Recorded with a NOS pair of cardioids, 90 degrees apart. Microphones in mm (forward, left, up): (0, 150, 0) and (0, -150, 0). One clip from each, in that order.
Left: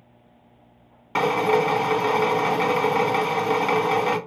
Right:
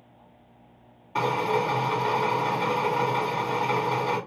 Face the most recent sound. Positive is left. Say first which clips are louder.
# left 5 dB
turn(degrees=70)